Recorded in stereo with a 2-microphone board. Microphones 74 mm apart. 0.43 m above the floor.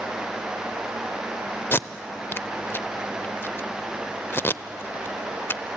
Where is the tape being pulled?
30° left (ahead or behind), 0.5 m.